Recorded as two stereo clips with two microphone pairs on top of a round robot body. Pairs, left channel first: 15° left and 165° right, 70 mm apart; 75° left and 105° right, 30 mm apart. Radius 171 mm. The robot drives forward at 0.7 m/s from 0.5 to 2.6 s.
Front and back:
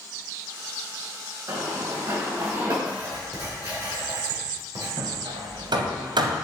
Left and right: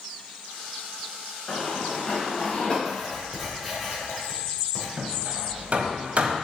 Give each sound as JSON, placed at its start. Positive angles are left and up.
{"t": 1.5, "sound": "running footsteps", "azimuth_deg": 155, "distance_m": 3.5}
{"t": 2.9, "sound": "writing", "azimuth_deg": 175, "distance_m": 3.5}
{"t": 5.0, "sound": "hammering", "azimuth_deg": -150, "distance_m": 1.0}